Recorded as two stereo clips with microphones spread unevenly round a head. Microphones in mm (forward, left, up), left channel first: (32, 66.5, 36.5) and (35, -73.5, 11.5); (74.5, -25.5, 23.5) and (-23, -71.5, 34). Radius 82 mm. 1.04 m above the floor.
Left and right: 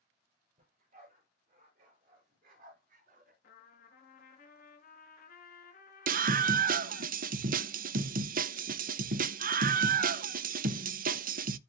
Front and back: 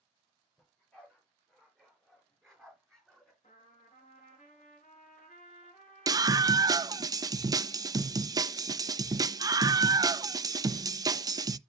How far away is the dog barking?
About 7.5 m.